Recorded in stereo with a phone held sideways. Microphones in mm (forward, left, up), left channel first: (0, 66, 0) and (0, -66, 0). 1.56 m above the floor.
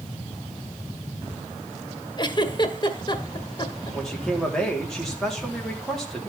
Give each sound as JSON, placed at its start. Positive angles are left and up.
{"t": 2.2, "sound": "a giggle", "side_deg": 35, "distance_m": 1.4}
{"t": 3.9, "sound": "a man speaking", "side_deg": 5, "distance_m": 3.5}